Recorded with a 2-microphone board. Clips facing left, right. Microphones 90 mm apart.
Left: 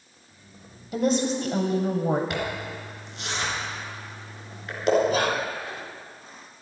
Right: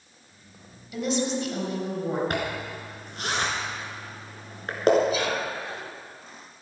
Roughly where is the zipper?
Right.